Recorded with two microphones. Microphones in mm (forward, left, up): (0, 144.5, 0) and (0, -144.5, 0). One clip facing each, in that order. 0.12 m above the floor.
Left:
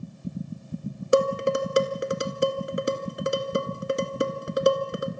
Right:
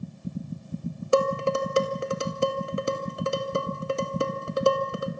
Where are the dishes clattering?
20° left (ahead or behind), 1.1 m.